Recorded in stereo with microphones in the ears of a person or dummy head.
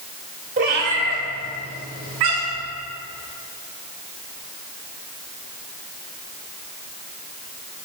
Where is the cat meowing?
35° right (ahead or behind), 1.1 m; by 2.6 s 75° right (ahead or behind), 3 m.